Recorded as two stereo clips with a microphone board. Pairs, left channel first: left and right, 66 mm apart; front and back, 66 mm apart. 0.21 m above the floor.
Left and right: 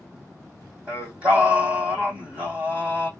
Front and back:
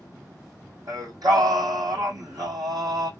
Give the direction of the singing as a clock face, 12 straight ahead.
5 o'clock.